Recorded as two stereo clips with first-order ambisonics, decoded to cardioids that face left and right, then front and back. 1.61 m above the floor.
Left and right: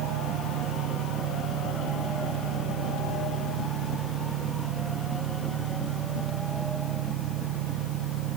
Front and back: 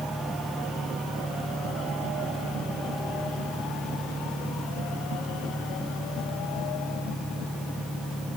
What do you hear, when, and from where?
0.0 s an engine running: 95° right